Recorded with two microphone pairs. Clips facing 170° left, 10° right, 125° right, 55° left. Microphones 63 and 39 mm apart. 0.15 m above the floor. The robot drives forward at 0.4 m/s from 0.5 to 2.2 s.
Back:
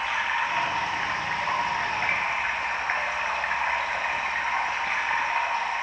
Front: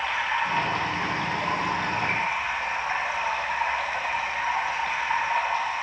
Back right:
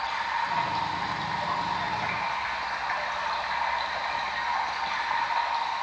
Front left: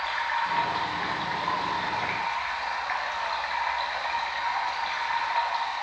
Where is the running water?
95° left, 1.0 m; by 5.8 s 135° left, 1.2 m.